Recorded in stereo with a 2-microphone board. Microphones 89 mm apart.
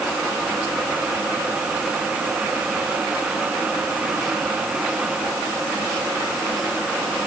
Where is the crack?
I don't hear a crack.